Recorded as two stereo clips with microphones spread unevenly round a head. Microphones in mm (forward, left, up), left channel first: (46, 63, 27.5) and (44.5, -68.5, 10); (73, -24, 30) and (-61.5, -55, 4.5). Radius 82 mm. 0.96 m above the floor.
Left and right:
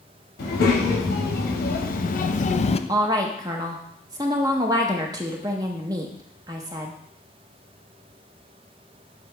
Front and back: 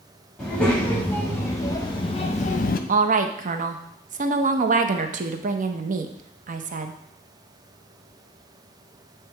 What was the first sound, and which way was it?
A child speaking, 100° left.